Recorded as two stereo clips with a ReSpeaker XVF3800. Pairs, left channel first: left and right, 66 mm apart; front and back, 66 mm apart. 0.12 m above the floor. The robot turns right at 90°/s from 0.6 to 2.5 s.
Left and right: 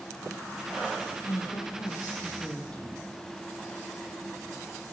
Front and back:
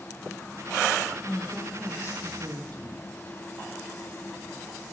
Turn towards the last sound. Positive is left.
turn(degrees=165)